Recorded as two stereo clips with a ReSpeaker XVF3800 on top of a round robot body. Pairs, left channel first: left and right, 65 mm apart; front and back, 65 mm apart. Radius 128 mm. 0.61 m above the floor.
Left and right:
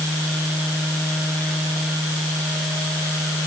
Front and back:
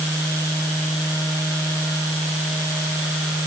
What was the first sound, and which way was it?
Only background noise.